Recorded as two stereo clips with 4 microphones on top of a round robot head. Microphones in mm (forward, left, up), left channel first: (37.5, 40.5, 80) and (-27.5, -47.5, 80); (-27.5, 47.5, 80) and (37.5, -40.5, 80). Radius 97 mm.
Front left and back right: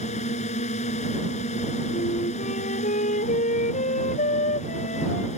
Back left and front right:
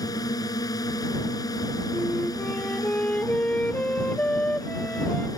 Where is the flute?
50° left.